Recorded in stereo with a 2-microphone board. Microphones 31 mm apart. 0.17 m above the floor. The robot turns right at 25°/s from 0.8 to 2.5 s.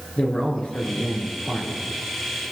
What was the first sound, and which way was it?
A man speaking, 35° left (ahead or behind).